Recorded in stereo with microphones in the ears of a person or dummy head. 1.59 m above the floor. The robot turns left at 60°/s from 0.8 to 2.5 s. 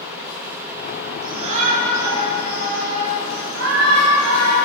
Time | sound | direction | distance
1.2 | a shout | 20° right | 5 m